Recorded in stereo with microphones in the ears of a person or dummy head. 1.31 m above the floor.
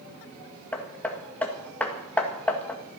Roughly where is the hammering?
Centre.